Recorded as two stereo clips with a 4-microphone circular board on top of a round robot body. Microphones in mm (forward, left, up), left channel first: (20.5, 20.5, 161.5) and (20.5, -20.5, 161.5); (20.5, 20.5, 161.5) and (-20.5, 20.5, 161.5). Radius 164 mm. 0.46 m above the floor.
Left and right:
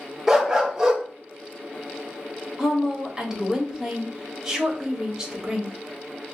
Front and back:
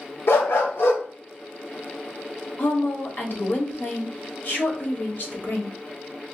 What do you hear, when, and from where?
0.3 s a dog barking: 10° right, 0.9 m
2.6 s a woman speaking: 10° right, 1.5 m